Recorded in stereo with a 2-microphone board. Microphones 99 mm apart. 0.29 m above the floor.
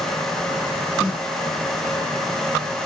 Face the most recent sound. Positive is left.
turn(degrees=35)  # may be behind; listen again after turning